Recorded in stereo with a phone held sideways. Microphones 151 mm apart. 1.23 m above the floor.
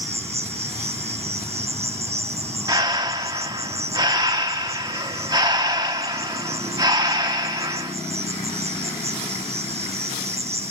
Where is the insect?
45° right (ahead or behind), 1.2 m.